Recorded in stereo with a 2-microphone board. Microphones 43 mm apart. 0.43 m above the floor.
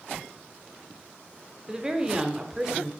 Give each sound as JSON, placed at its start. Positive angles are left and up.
{"t": 1.7, "sound": "a woman speaking", "side_deg": -15, "distance_m": 0.8}